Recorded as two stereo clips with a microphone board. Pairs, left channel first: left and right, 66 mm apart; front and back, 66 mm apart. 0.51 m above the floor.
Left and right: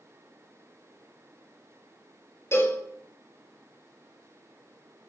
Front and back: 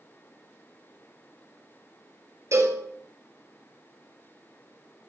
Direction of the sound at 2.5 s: 140° left.